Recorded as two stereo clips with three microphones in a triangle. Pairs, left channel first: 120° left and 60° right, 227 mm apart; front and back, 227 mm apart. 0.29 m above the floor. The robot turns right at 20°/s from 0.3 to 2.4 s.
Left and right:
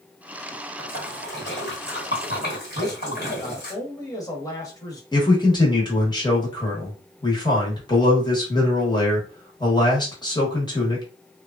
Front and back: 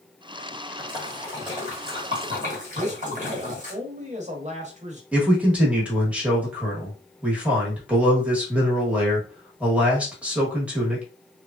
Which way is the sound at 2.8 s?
Straight behind.